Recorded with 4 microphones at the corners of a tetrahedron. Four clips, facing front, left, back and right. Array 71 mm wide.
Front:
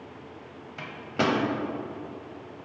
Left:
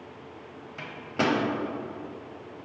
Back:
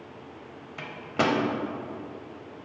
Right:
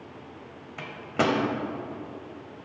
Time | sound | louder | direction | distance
0.8 | a microwave | right 2 dB, back 1 dB | 120° right | 0.8 m